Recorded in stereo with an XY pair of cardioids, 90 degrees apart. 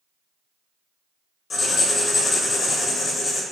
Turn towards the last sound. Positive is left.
turn(degrees=60)